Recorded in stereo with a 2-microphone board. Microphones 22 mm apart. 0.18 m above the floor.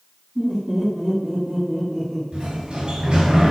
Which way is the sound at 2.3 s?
50° right (ahead or behind).